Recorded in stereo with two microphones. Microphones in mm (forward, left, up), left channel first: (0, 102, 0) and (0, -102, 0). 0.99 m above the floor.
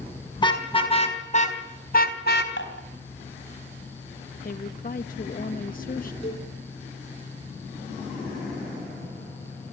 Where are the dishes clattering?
65° left (ahead or behind), 4 m.